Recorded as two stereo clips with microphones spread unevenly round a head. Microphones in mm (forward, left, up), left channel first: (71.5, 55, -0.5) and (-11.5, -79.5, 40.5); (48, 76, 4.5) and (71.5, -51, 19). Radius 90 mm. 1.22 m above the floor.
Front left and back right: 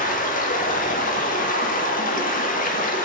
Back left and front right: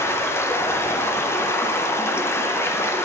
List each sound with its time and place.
0.0 s running water: 30° left, 0.7 m